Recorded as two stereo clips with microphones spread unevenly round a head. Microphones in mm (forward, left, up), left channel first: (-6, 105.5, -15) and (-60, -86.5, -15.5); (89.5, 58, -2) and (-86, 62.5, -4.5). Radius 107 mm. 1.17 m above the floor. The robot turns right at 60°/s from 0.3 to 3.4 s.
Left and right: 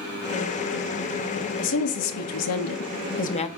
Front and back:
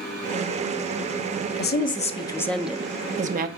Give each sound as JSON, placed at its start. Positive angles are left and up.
{"t": 1.6, "sound": "a woman speaking", "azimuth_deg": 30, "distance_m": 0.9}